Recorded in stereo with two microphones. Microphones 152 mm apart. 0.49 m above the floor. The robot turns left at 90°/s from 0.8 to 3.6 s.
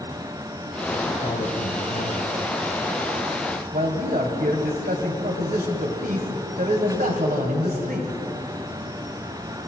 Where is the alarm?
I don't hear an alarm.